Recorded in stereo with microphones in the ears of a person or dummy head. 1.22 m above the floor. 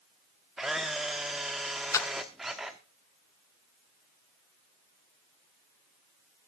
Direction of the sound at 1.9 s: 15° left (ahead or behind).